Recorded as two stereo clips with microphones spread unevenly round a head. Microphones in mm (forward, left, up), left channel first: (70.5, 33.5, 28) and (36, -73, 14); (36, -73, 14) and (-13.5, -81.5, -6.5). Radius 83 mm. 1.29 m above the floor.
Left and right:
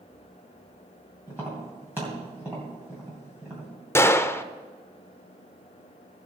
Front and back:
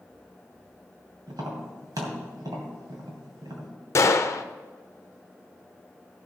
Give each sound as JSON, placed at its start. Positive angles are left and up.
{"t": 1.3, "sound": "tapping", "azimuth_deg": 170, "distance_m": 2.5}
{"t": 4.0, "sound": "a gunshot", "azimuth_deg": 5, "distance_m": 0.7}